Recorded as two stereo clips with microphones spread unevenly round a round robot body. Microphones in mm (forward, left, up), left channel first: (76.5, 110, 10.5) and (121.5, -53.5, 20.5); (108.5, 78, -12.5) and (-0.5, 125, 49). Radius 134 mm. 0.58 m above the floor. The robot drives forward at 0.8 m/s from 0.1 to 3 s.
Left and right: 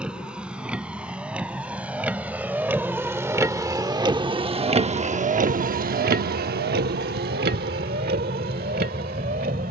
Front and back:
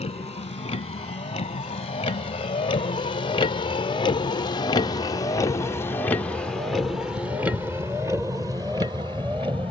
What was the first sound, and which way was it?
A vehicle, 10° left.